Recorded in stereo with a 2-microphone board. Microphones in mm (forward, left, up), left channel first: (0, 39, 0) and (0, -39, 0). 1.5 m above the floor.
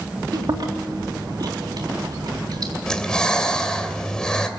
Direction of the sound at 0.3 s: 60° right (ahead or behind).